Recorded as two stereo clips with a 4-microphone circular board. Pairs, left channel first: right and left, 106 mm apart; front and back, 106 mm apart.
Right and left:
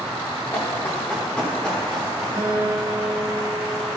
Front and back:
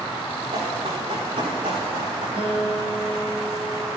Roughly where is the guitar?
Behind left.